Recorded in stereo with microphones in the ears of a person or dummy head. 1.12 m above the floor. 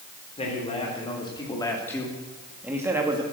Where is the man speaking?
35° left (ahead or behind), 4 m; by 3.2 s 20° right (ahead or behind), 2 m.